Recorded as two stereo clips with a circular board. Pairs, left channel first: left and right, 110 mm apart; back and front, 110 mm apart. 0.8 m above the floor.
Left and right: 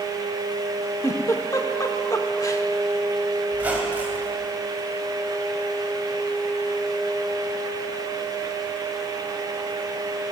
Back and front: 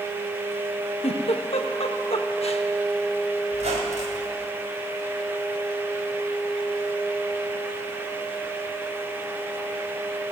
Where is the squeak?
15° right, 2.0 m.